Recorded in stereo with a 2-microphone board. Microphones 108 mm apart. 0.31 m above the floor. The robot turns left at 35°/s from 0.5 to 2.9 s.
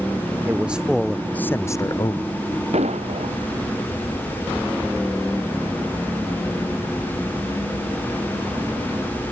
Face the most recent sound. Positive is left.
turn(degrees=-80)